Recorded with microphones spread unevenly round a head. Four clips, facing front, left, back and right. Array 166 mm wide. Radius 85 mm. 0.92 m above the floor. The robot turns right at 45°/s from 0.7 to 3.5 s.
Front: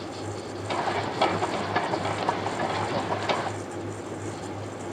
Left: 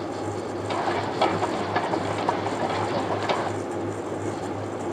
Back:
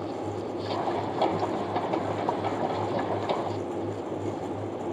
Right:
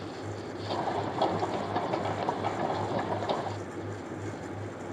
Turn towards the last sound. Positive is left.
No sound to turn to.